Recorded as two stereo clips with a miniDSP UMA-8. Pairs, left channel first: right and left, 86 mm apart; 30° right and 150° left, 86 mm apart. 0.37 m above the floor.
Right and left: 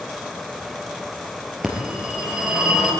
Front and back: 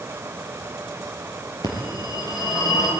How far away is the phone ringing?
About 4.5 m.